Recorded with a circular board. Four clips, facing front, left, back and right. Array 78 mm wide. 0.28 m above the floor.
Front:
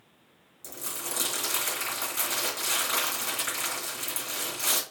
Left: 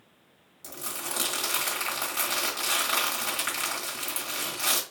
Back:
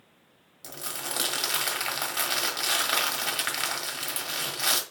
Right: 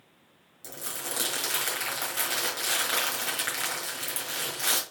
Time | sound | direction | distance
0.6 | crumpling | 175° left | 1.5 m